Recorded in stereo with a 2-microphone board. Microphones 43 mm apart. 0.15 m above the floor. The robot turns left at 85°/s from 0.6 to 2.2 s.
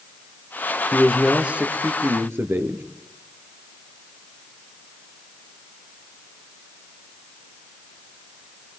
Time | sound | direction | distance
0.9 | a man speaking | 15° left | 2.5 m